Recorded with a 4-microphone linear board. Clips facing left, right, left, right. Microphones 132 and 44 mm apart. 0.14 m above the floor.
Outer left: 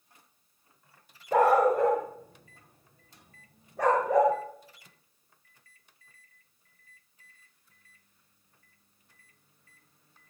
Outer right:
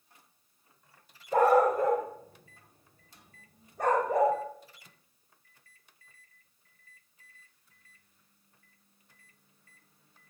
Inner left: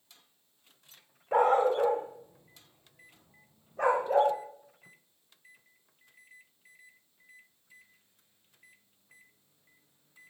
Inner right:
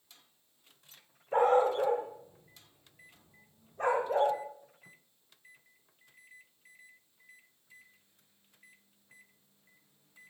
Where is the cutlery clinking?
I don't hear cutlery clinking.